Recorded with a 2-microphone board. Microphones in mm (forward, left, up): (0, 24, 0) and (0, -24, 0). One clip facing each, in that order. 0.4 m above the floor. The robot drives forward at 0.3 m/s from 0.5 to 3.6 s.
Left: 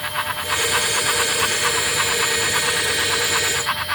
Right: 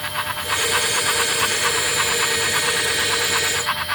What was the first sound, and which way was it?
Only background noise.